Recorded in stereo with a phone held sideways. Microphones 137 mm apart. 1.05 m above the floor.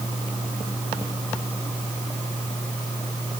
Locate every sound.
Only background noise.